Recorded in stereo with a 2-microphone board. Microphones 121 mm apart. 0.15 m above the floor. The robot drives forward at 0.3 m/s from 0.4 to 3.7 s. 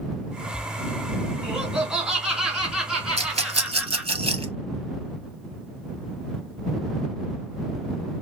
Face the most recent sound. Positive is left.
turn(degrees=-50)  # may be behind; listen again after turning